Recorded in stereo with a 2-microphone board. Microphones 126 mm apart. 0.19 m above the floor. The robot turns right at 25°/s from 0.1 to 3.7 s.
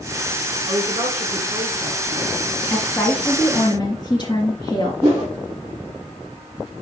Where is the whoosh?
30° right (ahead or behind), 5.5 m.